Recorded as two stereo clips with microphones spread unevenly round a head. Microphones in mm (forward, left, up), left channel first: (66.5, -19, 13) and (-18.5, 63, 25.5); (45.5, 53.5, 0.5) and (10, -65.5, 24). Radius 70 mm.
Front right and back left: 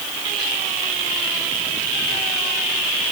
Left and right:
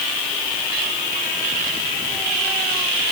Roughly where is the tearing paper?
I don't hear tearing paper.